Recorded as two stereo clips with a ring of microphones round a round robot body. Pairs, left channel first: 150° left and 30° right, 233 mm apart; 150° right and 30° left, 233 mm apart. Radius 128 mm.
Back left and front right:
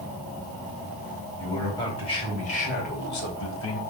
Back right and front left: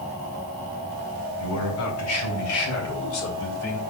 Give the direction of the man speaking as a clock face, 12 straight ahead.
4 o'clock.